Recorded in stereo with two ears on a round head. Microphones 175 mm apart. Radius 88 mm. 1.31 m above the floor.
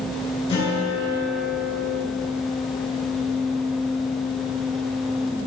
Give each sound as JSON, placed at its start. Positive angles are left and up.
{"t": 0.5, "sound": "a guitar", "side_deg": 30, "distance_m": 2.5}